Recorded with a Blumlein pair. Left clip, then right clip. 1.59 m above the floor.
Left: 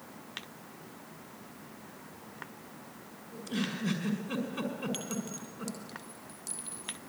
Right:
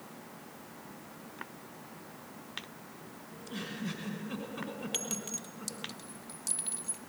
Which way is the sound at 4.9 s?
15° right.